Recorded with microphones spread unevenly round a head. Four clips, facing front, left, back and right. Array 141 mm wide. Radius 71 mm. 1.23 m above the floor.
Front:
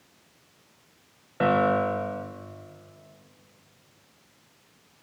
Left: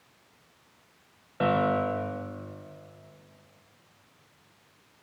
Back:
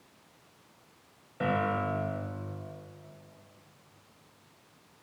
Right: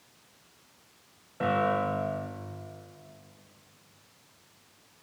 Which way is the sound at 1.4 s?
20° left.